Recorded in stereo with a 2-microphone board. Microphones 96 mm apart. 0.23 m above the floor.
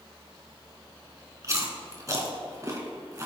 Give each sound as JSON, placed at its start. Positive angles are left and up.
{"t": 1.4, "sound": "chewing", "side_deg": -35, "distance_m": 2.0}